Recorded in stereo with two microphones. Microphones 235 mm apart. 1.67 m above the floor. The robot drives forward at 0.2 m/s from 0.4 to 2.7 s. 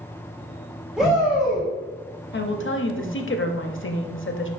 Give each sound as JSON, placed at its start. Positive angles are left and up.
{"t": 1.0, "sound": "a shout", "side_deg": -5, "distance_m": 1.8}
{"t": 2.3, "sound": "a woman speaking", "side_deg": 50, "distance_m": 0.5}